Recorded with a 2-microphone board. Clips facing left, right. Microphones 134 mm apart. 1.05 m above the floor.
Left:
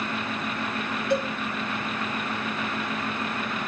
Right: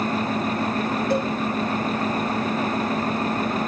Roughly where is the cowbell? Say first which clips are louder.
Even; right.